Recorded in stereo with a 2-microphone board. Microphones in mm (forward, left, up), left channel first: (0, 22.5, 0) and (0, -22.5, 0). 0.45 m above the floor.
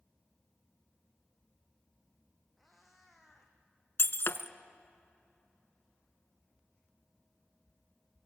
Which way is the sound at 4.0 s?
60° left (ahead or behind).